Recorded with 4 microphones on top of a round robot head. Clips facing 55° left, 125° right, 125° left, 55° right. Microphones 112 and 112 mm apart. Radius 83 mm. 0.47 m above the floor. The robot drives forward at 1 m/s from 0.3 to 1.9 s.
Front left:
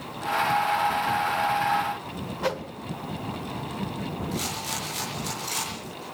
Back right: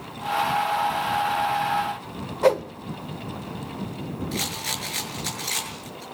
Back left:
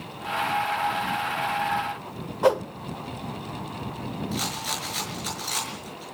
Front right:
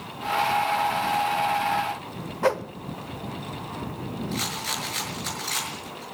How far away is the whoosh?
About 1.0 m.